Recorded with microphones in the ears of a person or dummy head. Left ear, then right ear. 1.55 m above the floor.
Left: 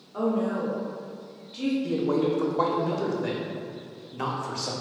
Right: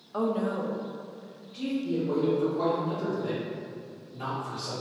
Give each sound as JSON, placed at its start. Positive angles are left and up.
{"t": 0.1, "sound": "a woman speaking", "side_deg": -70, "distance_m": 0.6}
{"t": 1.8, "sound": "a man speaking", "side_deg": 70, "distance_m": 0.7}